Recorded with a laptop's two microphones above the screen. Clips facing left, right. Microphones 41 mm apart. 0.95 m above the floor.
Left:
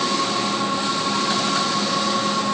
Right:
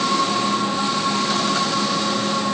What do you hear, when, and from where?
Only background noise.